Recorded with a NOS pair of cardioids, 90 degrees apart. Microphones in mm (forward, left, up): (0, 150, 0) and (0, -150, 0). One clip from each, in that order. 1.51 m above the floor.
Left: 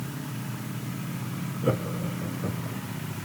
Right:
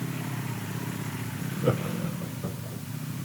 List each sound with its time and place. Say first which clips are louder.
1.6 s laughter: even; 5° right, 1.2 m; by 2.8 s 20° left, 2.5 m